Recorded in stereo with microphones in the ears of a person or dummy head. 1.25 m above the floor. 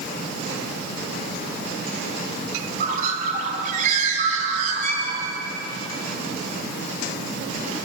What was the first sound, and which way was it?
A bird, 45° right (ahead or behind).